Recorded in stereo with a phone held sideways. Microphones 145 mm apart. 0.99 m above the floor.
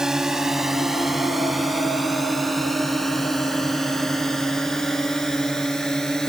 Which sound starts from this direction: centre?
A drone, at 0.0 s.